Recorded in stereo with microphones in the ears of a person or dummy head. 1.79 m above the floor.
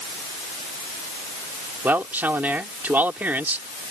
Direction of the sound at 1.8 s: 15° right (ahead or behind).